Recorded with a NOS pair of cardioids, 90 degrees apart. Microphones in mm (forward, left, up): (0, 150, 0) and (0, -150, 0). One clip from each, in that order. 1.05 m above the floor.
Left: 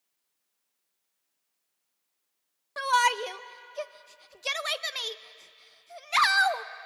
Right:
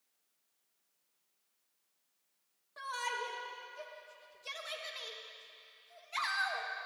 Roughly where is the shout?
Left.